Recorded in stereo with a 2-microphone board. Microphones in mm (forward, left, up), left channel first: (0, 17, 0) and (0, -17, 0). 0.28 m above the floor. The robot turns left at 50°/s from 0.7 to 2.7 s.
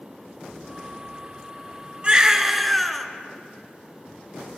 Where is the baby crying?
145° right, 1.1 m; by 3.1 s straight behind, 1.1 m.